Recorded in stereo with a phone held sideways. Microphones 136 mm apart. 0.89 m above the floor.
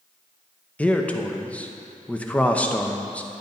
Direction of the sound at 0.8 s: 10° left (ahead or behind).